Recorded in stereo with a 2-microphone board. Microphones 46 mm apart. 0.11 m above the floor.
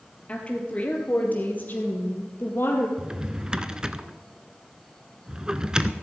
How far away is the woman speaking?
About 2.5 m.